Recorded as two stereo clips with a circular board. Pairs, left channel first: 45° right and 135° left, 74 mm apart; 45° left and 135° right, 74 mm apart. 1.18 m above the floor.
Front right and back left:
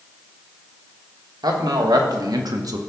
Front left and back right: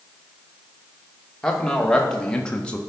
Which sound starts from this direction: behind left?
A man speaking, at 1.4 s.